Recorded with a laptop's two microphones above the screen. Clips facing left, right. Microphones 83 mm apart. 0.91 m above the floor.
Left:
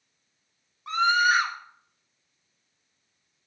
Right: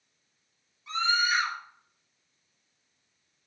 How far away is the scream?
About 1.3 m.